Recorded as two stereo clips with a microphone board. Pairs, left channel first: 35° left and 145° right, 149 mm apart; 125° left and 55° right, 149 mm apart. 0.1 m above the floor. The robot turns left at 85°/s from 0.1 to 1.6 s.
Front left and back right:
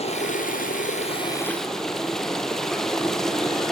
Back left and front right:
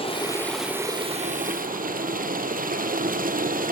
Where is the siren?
No siren in this recording.